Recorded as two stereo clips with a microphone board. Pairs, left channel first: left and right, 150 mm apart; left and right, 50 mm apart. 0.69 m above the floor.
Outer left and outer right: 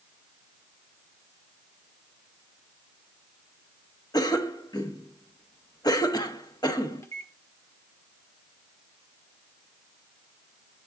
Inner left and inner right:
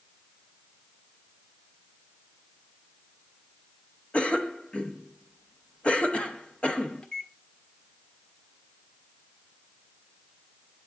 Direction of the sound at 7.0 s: 20° left (ahead or behind).